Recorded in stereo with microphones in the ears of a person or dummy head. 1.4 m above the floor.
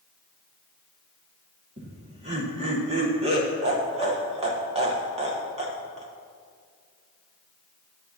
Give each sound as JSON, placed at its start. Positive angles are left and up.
{"t": 1.8, "sound": "laughter", "side_deg": -35, "distance_m": 1.3}